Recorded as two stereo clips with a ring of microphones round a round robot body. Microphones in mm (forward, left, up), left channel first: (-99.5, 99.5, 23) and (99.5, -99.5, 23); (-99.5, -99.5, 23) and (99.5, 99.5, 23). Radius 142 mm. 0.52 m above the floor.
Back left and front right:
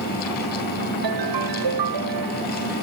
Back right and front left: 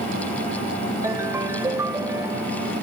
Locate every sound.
1.0 s a ringtone: 35° right